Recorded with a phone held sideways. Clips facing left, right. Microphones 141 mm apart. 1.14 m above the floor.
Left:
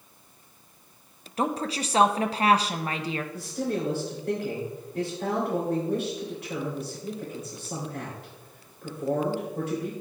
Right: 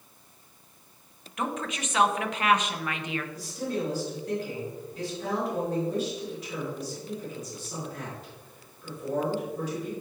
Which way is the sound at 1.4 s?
35° left (ahead or behind).